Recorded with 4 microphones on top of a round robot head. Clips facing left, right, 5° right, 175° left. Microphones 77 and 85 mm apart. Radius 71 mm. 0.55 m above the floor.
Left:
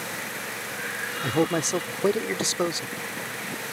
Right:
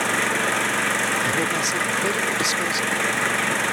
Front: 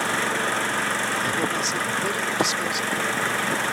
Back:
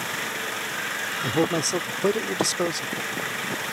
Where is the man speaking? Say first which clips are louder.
Right 1 dB, back 1 dB; 140° left.